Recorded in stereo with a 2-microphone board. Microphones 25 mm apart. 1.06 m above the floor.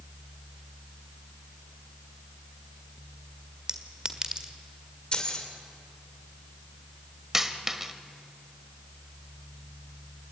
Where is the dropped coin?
15° right (ahead or behind), 1.5 m.